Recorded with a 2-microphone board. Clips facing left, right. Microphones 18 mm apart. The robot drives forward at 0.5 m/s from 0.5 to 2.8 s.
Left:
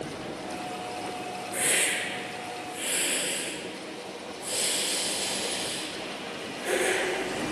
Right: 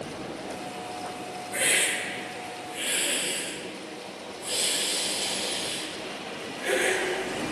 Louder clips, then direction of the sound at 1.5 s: Right 2 dB; 40° right (ahead or behind).